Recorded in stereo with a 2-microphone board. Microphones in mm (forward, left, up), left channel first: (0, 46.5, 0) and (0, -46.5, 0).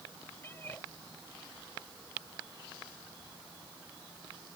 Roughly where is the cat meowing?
Left.